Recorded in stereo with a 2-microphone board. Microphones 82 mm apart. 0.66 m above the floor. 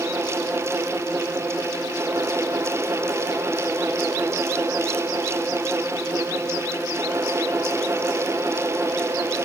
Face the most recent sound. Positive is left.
No sound to turn to.